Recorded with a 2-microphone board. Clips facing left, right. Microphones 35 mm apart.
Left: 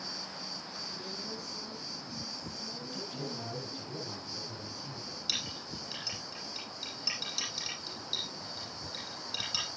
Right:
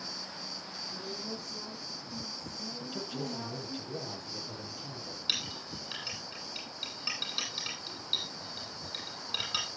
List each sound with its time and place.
0.9 s a woman speaking: 40° right (ahead or behind), 10 m; by 3.8 s 55° right (ahead or behind), 10 m
2.8 s a man speaking: 60° right (ahead or behind), 9.5 m
5.3 s a clink: 30° right (ahead or behind), 10 m